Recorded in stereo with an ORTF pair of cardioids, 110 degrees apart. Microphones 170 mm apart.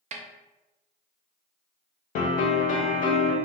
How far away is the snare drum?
About 0.5 m.